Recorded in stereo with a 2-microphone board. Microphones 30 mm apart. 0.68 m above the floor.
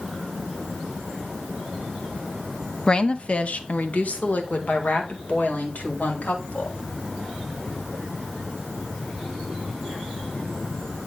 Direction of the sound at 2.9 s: 35° left (ahead or behind).